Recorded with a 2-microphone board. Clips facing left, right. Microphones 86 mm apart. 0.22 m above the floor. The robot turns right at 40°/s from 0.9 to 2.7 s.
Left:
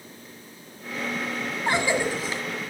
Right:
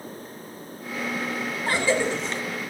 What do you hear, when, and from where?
1.7 s a cough: 150° left, 1.9 m; by 2.4 s straight behind, 1.9 m